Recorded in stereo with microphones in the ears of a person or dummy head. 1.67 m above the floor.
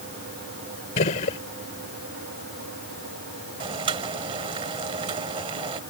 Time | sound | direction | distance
1.0 | a gunshot | 40° left (ahead or behind) | ?
3.6 | boiling | 30° right (ahead or behind) | ?